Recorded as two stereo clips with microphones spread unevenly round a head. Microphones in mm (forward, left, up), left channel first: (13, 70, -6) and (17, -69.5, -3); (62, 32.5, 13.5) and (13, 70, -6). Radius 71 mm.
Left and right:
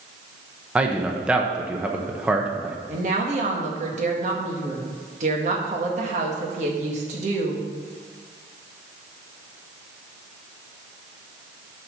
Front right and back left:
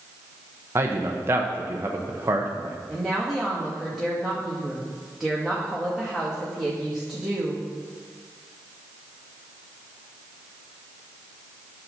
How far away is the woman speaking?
About 1.8 m.